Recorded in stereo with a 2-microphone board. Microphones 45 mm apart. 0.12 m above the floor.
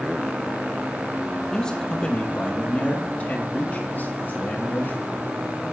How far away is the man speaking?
About 3 m.